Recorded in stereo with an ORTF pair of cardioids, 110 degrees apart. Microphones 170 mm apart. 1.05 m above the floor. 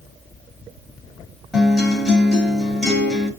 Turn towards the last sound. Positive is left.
turn(degrees=0)